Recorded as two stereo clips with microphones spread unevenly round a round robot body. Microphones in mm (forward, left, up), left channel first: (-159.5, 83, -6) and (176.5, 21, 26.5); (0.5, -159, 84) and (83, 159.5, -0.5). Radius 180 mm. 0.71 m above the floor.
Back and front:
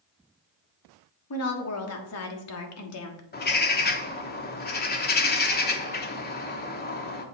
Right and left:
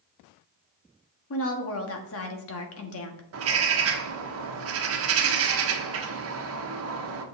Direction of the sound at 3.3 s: 110° left.